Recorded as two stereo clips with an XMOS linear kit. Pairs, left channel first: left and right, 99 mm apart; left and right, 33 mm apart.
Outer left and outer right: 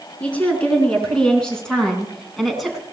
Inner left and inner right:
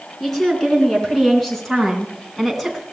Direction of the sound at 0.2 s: 15° left (ahead or behind).